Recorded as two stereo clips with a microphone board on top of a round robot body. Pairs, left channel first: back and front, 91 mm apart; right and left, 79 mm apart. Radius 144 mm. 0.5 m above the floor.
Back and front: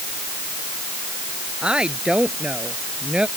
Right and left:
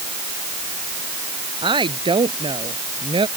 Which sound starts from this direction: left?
A woman speaking, at 1.6 s.